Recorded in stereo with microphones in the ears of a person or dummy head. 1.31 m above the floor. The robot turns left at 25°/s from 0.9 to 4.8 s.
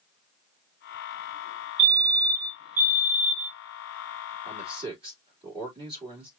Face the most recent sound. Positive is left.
turn(degrees=-30)  # may be behind; listen again after turning